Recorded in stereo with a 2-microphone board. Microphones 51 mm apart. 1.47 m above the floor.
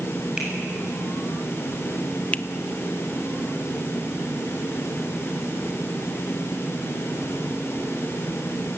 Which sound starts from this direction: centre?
A finger snap, at 0.4 s.